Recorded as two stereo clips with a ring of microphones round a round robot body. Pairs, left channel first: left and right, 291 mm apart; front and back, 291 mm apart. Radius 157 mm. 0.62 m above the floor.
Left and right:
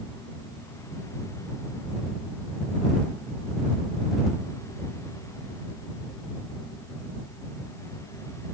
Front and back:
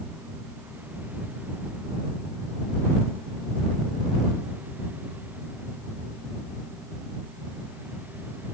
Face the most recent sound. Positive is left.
No sound to turn to.